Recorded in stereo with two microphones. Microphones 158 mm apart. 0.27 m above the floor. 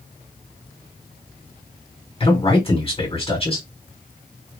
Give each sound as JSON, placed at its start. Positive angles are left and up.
{"t": 2.2, "sound": "a man speaking", "side_deg": 40, "distance_m": 2.0}